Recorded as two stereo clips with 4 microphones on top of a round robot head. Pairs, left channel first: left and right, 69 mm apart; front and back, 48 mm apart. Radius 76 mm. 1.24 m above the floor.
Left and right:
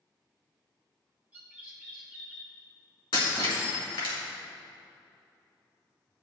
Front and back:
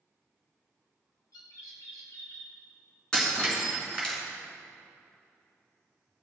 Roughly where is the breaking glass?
Left.